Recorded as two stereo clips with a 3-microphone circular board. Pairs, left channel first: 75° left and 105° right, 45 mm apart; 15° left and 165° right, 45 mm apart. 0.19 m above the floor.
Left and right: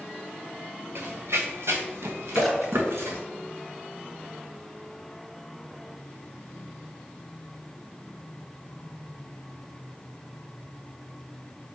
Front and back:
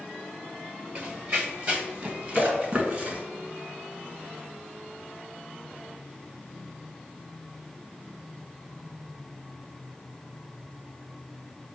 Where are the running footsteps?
120° right, 1.3 m; by 3.2 s 115° right, 3 m.